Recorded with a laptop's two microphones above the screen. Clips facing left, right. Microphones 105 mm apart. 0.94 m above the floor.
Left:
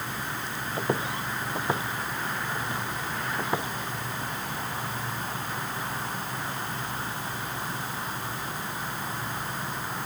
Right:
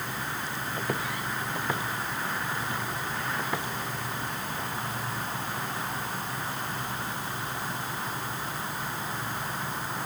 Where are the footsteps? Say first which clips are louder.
Left 4 dB; 25° left (ahead or behind).